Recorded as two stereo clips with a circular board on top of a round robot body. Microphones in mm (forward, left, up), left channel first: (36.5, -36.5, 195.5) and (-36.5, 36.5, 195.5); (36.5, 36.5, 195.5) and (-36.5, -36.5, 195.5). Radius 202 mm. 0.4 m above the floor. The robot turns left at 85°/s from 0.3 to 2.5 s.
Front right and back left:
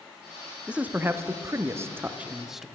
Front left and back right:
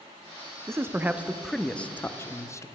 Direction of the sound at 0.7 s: 155° right.